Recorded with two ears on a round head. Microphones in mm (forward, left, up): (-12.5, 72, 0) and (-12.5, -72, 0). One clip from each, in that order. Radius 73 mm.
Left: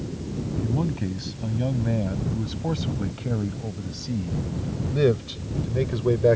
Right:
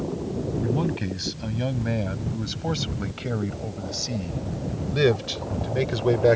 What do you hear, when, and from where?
0.6 s a man speaking: 60° right (ahead or behind); by 6.4 s 70° right (ahead or behind)